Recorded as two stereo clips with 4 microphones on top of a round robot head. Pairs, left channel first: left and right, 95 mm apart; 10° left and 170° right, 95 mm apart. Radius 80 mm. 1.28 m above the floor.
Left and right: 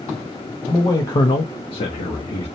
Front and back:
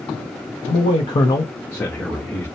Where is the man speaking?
20° left, 0.7 m; by 2.5 s 100° left, 0.9 m.